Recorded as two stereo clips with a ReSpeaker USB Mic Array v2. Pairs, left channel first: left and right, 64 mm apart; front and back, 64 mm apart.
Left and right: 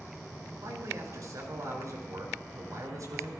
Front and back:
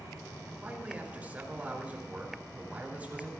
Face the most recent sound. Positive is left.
turn(degrees=-115)